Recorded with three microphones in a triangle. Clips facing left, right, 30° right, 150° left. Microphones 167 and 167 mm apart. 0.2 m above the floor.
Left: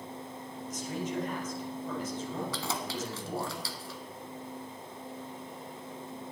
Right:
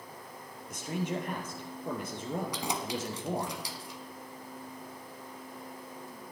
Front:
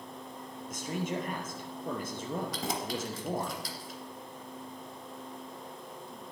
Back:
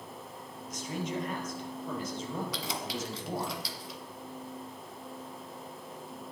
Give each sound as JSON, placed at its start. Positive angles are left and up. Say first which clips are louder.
{"t": 0.7, "sound": "a man speaking", "louder": "right 1 dB, front 1 dB", "azimuth_deg": -65, "distance_m": 4.5}
{"t": 2.5, "sound": "keys jangling", "louder": "right 1 dB, front 2 dB", "azimuth_deg": -20, "distance_m": 1.5}